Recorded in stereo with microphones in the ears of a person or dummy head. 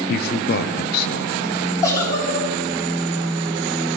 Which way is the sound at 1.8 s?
15° left (ahead or behind).